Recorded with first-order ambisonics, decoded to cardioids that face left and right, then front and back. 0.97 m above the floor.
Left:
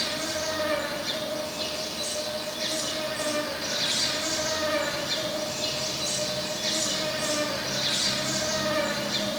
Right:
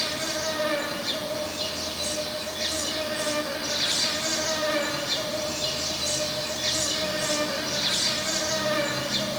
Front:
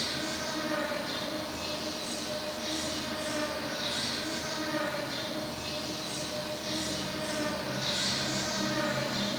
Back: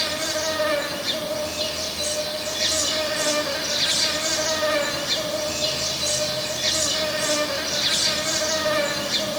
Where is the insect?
175° right, 1.3 m.